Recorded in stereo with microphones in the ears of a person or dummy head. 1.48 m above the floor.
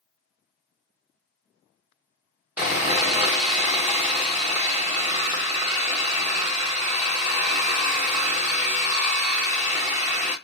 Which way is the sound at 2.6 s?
10° right (ahead or behind).